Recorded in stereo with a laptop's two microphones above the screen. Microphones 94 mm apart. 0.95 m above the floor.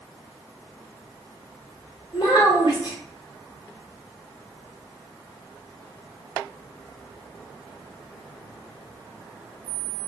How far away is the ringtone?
I don't hear a ringtone.